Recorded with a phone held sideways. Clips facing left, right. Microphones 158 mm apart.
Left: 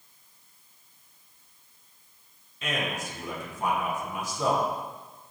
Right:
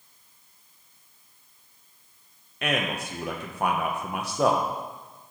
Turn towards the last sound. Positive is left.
turn(degrees=-65)  # may be behind; listen again after turning